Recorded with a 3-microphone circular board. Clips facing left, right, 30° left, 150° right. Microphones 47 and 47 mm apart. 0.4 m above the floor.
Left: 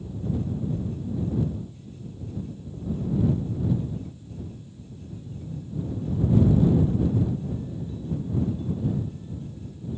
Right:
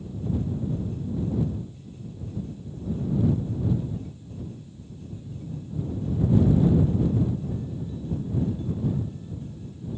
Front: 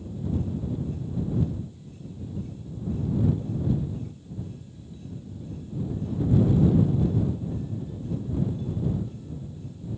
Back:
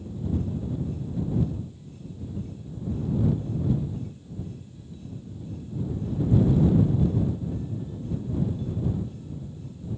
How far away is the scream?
No scream in this recording.